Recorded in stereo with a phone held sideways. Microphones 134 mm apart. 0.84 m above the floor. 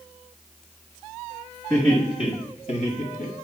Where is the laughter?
25° left (ahead or behind), 1.9 m; by 3.4 s 65° left (ahead or behind), 1.6 m.